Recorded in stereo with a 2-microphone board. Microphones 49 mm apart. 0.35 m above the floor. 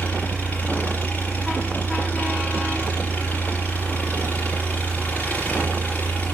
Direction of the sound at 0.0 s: 35° left (ahead or behind).